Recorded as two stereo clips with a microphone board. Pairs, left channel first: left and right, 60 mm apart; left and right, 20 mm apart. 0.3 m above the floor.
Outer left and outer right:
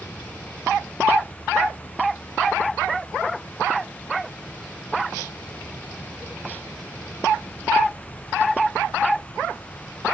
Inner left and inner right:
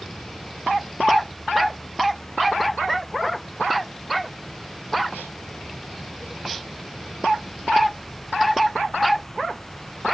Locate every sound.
0.0 s an insect: 45° left (ahead or behind)